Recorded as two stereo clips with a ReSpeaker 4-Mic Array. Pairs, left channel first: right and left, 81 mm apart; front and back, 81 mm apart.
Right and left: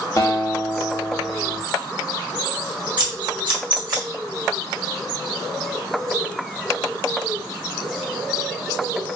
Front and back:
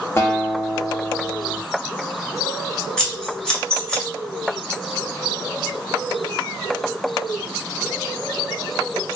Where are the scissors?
80° left, 1.5 m.